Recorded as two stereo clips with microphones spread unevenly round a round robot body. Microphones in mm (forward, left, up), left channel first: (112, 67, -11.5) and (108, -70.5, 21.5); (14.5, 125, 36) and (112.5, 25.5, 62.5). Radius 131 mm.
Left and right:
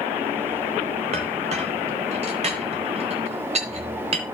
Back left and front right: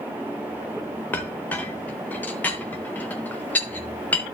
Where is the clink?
155° right, 0.7 m.